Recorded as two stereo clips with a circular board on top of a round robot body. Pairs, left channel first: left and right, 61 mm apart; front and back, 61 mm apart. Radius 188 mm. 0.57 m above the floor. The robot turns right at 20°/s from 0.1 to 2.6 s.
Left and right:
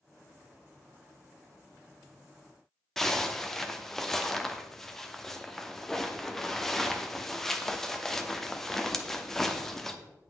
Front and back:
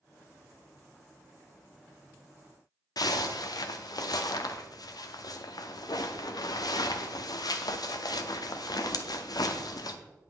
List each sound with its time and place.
3.0 s a zipper: 5° left, 0.8 m